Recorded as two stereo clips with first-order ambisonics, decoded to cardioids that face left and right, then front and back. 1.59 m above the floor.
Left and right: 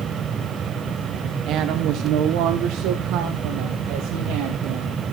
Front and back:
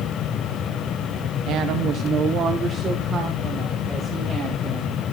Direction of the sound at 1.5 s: 135° right.